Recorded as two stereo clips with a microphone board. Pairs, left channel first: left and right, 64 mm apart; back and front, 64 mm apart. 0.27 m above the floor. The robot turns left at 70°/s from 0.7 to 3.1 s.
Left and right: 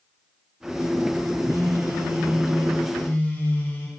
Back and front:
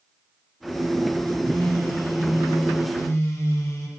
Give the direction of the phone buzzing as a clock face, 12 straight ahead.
3 o'clock.